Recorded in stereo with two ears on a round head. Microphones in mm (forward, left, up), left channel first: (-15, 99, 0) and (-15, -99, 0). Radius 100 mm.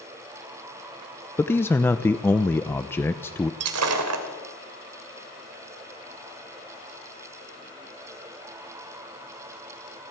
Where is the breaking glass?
80° right, 2.5 m.